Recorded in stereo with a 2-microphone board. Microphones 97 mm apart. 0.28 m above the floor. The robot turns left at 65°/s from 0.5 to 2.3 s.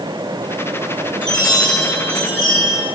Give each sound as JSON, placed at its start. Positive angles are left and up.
{"t": 1.2, "sound": "a chime", "azimuth_deg": 75, "distance_m": 2.5}